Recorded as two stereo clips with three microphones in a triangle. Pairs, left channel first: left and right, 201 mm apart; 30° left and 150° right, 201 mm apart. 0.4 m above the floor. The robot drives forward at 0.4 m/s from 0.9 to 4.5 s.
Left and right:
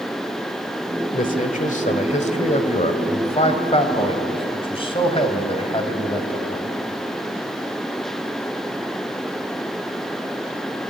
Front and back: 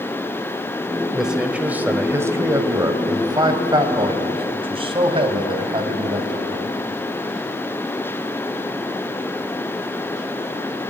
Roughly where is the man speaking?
Behind left.